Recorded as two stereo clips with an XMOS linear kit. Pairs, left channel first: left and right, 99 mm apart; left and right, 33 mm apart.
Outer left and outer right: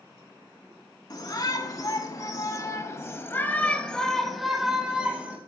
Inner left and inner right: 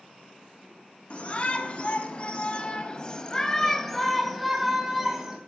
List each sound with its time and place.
1.1 s a shout: 40° left (ahead or behind), 2.5 m; by 5.4 s 15° right (ahead or behind), 2 m